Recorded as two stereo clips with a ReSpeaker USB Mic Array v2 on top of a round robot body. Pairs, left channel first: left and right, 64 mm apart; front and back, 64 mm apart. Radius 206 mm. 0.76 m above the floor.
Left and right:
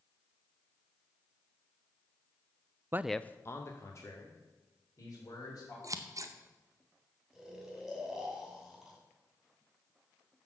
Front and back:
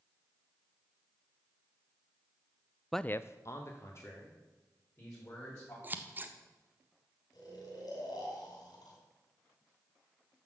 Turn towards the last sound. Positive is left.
turn(degrees=-5)